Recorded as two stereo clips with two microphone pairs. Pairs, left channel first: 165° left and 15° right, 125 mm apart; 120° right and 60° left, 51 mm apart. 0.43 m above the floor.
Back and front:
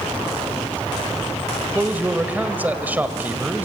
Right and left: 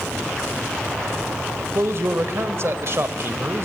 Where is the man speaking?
60° left, 1.6 m.